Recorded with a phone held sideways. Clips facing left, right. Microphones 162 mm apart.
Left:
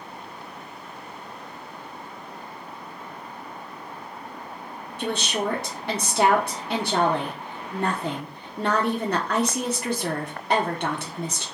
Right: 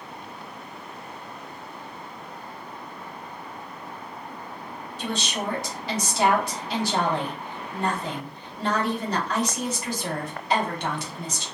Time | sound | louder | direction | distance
5.0 | a woman speaking | left 3 dB | 65° left (ahead or behind) | 1.0 m